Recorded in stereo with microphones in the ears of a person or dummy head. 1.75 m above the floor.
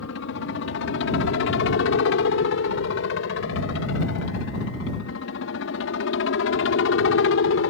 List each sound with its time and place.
0.0 s a helicopter: 60° left (ahead or behind); by 7.7 s 65° left (ahead or behind)